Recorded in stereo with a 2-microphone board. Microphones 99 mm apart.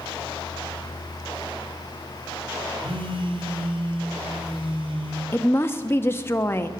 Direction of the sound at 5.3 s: 25° left (ahead or behind).